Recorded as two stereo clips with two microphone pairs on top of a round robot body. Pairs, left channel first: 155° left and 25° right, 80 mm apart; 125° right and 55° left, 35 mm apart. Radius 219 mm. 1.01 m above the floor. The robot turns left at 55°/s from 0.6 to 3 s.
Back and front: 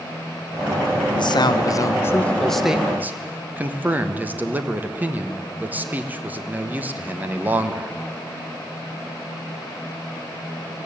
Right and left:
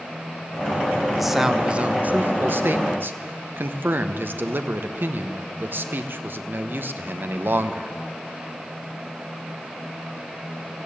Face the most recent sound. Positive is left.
turn(degrees=45)